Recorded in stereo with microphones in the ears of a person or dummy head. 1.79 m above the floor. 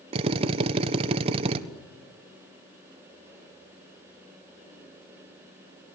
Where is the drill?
30° right (ahead or behind), 1.2 m.